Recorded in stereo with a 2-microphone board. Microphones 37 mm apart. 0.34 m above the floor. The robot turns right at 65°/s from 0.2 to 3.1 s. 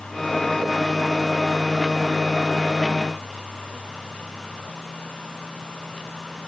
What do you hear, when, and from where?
Only background noise.